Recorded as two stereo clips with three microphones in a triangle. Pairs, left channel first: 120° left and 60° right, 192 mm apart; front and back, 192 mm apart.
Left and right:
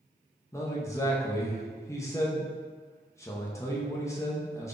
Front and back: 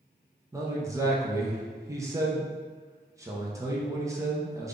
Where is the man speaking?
155° left, 0.5 m.